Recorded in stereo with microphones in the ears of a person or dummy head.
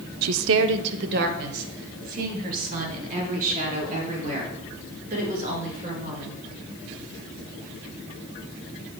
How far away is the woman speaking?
About 0.6 m.